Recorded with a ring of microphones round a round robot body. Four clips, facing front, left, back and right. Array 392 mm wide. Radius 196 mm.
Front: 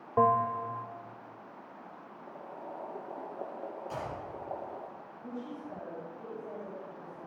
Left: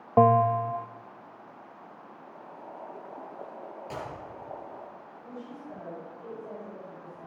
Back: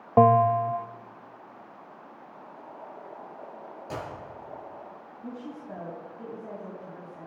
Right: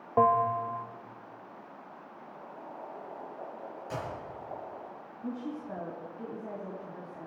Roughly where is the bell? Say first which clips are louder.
Left 4 dB, back 8 dB; behind left.